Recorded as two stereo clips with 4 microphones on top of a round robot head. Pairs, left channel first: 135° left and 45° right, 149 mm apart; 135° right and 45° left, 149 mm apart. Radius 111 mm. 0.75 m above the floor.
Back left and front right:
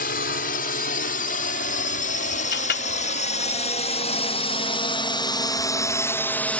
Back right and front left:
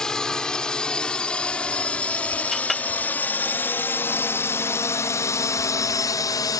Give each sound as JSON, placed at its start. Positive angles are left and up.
{"t": 0.0, "sound": "a drone", "azimuth_deg": 140}
{"t": 2.5, "sound": "a clink", "azimuth_deg": 135}